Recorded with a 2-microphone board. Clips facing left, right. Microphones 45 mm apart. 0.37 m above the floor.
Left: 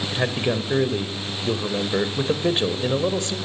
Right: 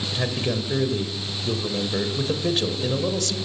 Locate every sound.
0.1 s a man speaking: 25° left (ahead or behind), 1.2 m